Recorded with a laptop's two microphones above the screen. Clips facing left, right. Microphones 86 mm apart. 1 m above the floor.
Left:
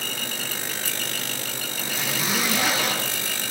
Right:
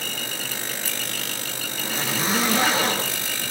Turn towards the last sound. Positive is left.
turn(degrees=-35)  # may be behind; listen again after turning